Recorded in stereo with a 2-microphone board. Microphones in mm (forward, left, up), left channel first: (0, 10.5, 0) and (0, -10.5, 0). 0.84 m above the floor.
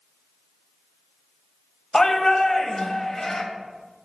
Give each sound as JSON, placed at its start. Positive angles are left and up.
{"t": 1.9, "sound": "a shout", "side_deg": 20, "distance_m": 0.7}